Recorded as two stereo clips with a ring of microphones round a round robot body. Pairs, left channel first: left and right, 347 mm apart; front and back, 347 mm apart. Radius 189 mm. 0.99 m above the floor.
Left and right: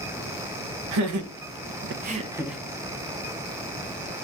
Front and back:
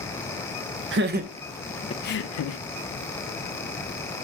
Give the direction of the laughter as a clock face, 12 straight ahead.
4 o'clock.